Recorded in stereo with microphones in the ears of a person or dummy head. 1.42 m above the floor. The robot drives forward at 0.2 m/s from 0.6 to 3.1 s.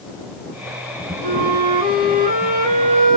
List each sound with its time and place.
1.2 s a flute: 45° right (ahead or behind), 3 m